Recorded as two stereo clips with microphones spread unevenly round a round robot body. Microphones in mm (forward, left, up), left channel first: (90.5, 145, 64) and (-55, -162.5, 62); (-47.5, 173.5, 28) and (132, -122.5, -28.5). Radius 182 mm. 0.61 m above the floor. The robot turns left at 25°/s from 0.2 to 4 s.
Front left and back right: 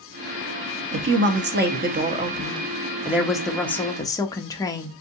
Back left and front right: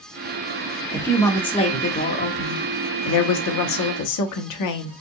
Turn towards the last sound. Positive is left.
turn(degrees=140)